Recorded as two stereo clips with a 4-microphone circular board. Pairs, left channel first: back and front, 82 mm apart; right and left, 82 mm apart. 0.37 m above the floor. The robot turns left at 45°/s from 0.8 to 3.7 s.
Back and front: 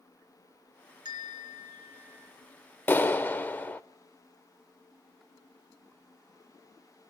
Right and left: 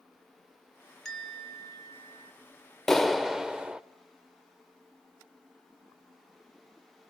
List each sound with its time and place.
1.1 s a bell: 5° right, 2.5 m; by 2.3 s 65° right, 2.5 m
2.9 s a clap: 165° right, 0.6 m; by 3.8 s 155° left, 0.6 m